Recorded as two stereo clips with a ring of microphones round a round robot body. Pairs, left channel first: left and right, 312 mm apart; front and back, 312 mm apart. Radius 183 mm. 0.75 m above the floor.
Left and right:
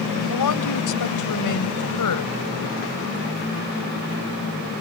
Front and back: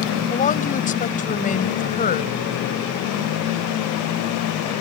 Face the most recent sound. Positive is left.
turn(degrees=65)